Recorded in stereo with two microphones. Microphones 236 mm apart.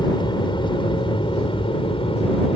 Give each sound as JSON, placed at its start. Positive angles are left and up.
{"t": 0.0, "sound": "an aircraft", "side_deg": 20}